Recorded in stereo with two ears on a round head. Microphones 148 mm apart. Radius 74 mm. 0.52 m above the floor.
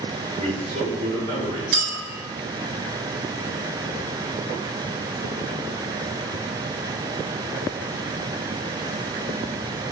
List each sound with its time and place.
0.4 s a man speaking: 45° right (ahead or behind), 2 m
1.7 s a clink: 70° right (ahead or behind), 3 m